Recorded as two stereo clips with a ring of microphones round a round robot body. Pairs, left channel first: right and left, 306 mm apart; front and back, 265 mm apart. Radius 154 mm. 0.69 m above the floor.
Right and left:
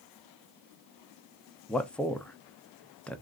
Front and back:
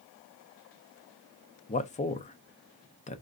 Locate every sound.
1.7 s a man speaking: 5° right, 0.6 m